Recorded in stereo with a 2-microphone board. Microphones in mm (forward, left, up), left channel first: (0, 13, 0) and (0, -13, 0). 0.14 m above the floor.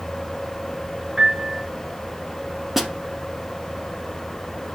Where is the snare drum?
10° right (ahead or behind), 1.0 m.